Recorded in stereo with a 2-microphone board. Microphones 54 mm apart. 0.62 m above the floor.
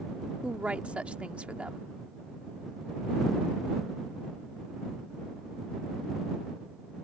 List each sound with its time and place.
0.4 s a woman speaking: 25° right (ahead or behind)